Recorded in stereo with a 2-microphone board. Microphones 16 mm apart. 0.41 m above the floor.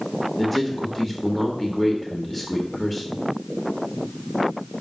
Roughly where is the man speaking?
Centre.